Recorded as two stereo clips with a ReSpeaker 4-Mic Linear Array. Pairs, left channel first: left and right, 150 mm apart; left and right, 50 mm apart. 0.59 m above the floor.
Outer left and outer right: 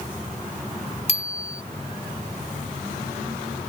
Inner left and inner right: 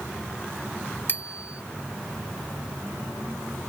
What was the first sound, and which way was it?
A bicycle bell, 45° left (ahead or behind).